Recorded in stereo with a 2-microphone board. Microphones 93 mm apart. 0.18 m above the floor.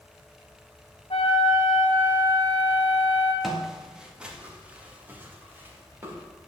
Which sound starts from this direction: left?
A flute, at 1.1 s.